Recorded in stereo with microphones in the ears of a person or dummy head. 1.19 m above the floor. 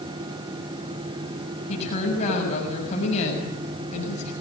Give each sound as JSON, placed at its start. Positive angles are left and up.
{"t": 1.7, "sound": "a woman speaking", "side_deg": 40, "distance_m": 7.0}